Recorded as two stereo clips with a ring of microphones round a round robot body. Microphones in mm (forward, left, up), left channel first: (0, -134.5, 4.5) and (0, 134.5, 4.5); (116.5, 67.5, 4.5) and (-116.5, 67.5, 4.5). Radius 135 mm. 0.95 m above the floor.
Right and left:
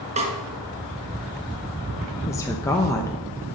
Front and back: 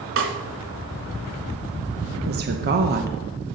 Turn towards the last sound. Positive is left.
turn(degrees=-165)